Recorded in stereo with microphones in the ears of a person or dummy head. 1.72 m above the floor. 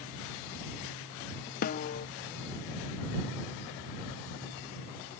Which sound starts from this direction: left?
A snare drum, at 1.6 s.